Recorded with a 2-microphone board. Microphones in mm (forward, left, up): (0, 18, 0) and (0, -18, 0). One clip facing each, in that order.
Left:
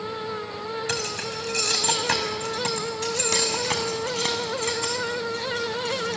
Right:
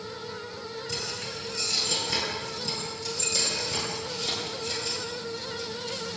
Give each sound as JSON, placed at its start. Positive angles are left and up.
{"t": 0.9, "sound": "keys jangling", "side_deg": 80, "distance_m": 5.0}